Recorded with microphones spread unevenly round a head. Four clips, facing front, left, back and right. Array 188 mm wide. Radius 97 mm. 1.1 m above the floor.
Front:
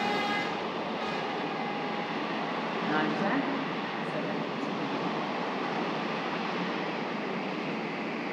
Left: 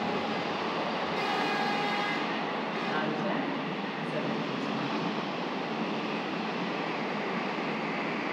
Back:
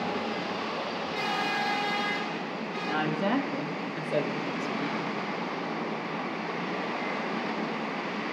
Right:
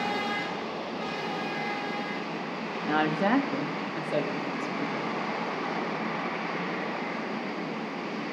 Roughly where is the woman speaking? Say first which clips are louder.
Right 8 dB, back 2 dB; right.